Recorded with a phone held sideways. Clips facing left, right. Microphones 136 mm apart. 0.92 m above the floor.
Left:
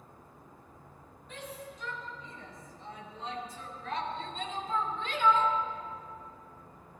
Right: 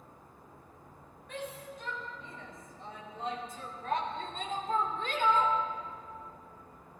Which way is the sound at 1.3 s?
55° right (ahead or behind).